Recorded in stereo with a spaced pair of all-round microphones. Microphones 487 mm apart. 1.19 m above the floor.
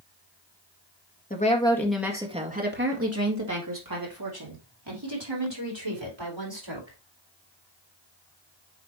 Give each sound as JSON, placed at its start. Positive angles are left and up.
{"t": 1.3, "sound": "a woman speaking", "side_deg": 15, "distance_m": 1.8}